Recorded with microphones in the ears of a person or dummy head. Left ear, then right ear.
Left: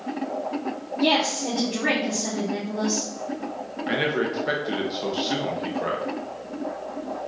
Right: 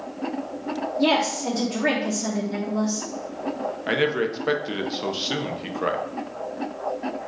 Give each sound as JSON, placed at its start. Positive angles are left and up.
{"t": 1.0, "sound": "a woman speaking", "side_deg": -40, "distance_m": 0.9}
{"t": 3.9, "sound": "a man speaking", "side_deg": -20, "distance_m": 0.6}